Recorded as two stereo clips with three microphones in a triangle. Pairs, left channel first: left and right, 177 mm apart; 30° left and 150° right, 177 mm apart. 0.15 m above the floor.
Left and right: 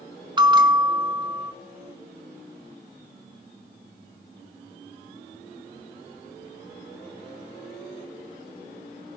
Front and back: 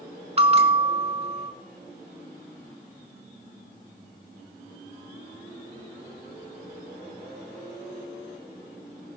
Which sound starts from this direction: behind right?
A bell, at 0.4 s.